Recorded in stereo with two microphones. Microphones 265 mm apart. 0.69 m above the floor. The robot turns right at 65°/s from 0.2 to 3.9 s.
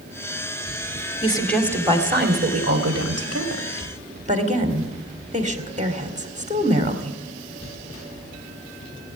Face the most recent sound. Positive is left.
turn(degrees=-30)